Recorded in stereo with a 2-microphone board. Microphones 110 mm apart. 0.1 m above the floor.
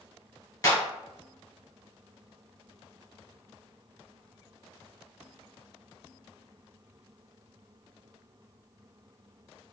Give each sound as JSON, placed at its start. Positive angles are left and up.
{"t": 0.6, "sound": "a clap", "side_deg": 30, "distance_m": 1.6}